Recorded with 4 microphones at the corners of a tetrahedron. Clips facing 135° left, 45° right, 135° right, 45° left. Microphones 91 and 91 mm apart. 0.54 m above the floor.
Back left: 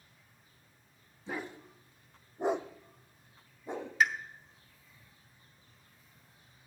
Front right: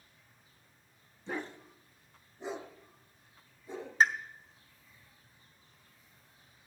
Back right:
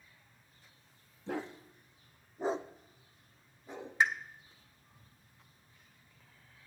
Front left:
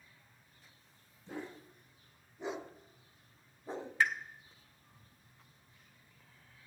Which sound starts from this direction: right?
A pop, at 4.0 s.